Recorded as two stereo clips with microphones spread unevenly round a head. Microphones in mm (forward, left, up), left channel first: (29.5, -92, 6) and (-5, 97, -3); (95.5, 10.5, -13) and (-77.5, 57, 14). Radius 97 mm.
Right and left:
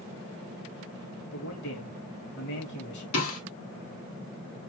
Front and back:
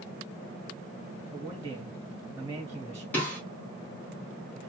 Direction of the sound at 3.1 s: 95° right.